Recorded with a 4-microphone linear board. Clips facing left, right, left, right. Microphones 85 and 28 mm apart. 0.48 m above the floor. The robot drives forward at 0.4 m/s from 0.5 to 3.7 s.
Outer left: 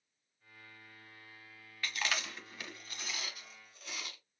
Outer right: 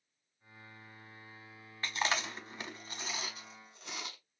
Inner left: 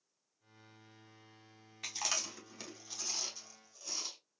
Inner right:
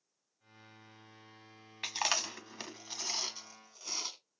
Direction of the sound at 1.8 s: 30° right (ahead or behind).